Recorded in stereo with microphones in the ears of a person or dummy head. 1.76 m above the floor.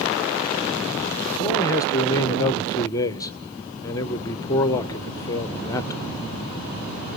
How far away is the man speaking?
About 1.0 m.